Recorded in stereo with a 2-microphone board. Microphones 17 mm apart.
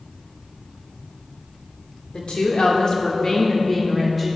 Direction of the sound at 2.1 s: 65° left (ahead or behind).